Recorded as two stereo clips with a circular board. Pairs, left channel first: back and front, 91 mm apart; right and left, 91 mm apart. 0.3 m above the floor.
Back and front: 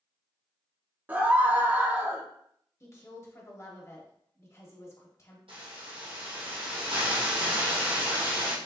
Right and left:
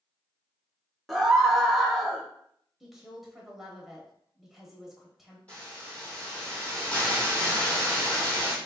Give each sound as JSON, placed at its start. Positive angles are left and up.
{"t": 1.1, "sound": "a scream", "azimuth_deg": 0, "distance_m": 0.9}
{"t": 2.8, "sound": "a woman speaking", "azimuth_deg": 175, "distance_m": 1.2}
{"t": 5.5, "sound": "a hiss", "azimuth_deg": -15, "distance_m": 2.0}